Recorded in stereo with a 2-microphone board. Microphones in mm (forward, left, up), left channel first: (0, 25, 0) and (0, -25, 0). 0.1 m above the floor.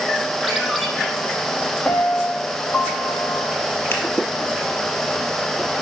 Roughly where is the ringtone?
Centre.